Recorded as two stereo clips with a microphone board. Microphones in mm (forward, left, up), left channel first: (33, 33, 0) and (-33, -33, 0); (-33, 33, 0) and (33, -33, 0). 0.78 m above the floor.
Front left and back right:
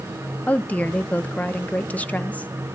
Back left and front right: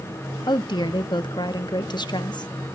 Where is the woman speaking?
115° left, 1.1 m.